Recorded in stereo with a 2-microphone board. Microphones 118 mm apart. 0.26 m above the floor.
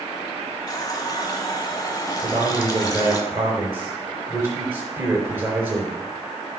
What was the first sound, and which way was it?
A running tap, 35° left (ahead or behind).